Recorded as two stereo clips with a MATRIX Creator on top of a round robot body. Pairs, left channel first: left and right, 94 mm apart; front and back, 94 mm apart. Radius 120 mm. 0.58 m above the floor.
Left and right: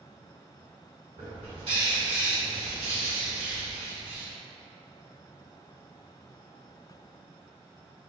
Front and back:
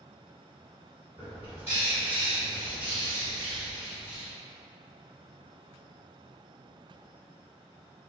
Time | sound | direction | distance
1.2 | a bird | 115° right | 1.6 m